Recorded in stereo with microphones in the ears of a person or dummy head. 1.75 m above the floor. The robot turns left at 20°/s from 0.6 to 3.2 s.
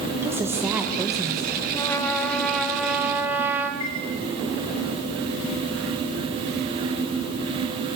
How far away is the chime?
About 6 m.